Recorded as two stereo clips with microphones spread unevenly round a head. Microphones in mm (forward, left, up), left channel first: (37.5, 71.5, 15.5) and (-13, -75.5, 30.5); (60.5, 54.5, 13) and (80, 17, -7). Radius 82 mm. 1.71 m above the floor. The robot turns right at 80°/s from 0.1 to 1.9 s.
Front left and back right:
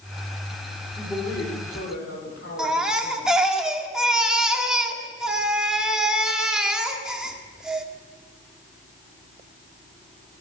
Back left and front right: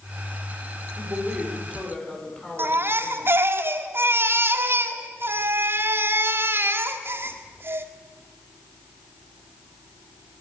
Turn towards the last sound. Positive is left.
turn(degrees=-30)